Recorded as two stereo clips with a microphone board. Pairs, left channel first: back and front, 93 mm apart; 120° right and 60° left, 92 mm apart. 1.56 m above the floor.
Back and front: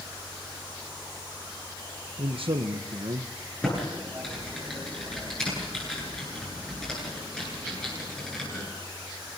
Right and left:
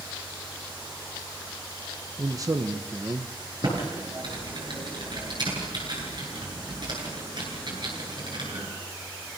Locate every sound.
2.2 s a man speaking: 10° left, 1.1 m
3.6 s typing on a keyboard: 100° left, 9.5 m